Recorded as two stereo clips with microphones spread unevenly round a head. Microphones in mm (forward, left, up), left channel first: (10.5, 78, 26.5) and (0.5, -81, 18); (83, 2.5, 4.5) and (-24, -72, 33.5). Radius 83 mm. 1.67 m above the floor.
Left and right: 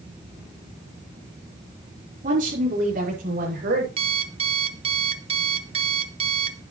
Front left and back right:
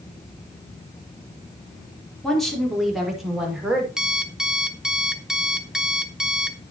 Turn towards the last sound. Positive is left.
turn(degrees=-90)